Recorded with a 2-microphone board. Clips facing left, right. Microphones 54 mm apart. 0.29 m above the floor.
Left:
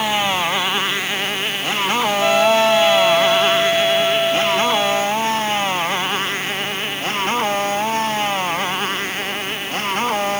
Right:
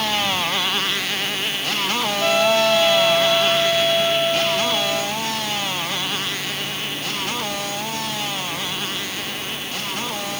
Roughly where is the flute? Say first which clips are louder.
Left 2 dB; centre.